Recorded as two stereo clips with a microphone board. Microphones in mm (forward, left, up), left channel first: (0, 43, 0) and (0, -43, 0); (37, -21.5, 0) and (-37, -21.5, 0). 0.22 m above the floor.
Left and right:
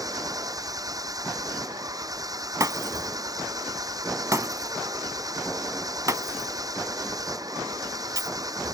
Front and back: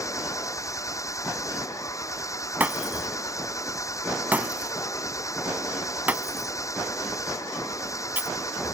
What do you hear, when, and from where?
0.0 s an engine running: 45° right
2.6 s breaking glass: 120° right